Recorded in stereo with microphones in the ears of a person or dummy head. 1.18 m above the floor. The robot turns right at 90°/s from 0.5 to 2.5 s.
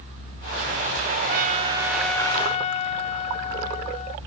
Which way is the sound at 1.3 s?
70° right.